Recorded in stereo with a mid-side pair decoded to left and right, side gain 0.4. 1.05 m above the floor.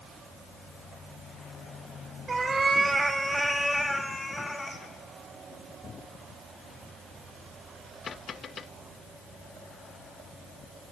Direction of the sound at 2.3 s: 45° right.